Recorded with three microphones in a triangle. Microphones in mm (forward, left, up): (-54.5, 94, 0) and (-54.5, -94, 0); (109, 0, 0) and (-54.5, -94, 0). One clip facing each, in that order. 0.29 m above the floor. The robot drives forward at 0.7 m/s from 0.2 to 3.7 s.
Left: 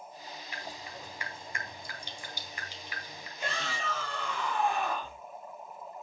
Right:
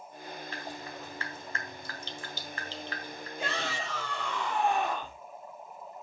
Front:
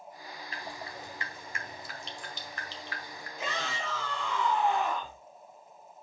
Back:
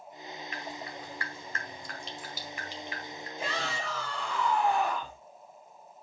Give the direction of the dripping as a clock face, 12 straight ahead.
11 o'clock.